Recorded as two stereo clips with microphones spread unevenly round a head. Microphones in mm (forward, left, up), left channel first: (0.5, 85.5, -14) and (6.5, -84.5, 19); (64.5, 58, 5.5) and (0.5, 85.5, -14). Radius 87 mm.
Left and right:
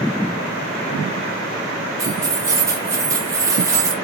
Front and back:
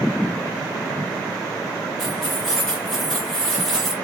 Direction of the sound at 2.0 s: 65° right.